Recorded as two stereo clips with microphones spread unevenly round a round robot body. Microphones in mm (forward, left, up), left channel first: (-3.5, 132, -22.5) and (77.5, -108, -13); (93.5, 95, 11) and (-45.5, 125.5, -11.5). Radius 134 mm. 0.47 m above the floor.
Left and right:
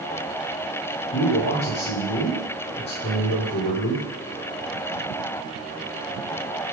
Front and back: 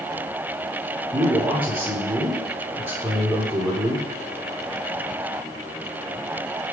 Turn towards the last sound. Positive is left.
turn(degrees=110)